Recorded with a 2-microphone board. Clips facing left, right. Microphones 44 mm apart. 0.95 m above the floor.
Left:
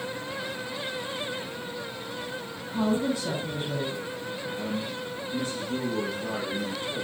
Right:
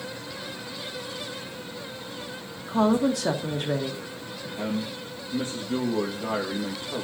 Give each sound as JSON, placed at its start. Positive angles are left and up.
{"t": 2.7, "sound": "a woman speaking", "side_deg": -80, "distance_m": 1.4}
{"t": 4.6, "sound": "a man speaking", "side_deg": -40, "distance_m": 1.3}